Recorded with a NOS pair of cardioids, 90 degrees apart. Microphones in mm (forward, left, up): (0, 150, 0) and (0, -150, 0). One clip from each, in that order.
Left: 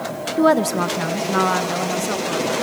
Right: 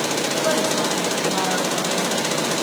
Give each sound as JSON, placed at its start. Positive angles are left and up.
{"t": 0.4, "sound": "a woman speaking", "azimuth_deg": 55, "distance_m": 1.2}